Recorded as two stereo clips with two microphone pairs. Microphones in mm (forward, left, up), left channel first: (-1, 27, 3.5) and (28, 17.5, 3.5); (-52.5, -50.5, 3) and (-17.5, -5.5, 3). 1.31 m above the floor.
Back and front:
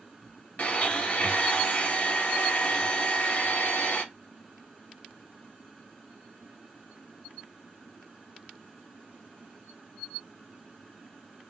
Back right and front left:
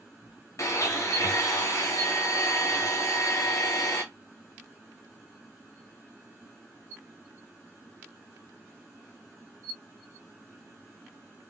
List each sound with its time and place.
0.6 s a blender: 160° right, 1.1 m